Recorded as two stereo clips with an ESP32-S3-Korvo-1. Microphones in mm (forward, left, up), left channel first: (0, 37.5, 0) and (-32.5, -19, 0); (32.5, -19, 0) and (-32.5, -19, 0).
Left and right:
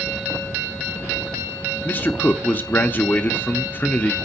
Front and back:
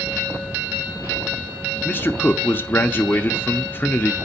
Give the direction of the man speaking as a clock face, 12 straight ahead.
11 o'clock.